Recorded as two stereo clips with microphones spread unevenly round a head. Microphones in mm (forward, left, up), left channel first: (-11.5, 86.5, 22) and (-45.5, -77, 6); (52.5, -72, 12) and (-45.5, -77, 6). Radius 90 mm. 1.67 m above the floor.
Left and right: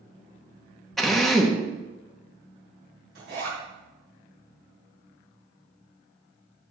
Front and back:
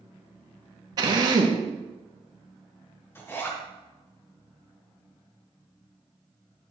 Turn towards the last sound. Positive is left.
turn(degrees=-65)